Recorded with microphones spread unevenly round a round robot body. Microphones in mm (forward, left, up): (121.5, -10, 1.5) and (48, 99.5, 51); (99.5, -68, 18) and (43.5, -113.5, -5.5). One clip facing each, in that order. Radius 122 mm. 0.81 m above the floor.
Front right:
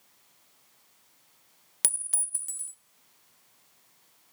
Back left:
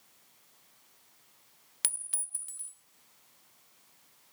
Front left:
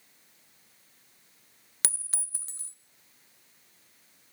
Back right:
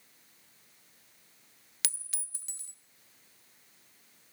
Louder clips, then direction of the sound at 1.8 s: Front right 7 dB, front left 5 dB; 20° right.